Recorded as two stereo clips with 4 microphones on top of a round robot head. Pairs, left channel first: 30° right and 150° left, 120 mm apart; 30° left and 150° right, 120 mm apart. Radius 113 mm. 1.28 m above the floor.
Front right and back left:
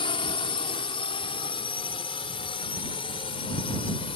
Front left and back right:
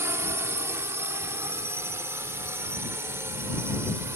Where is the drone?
80° right.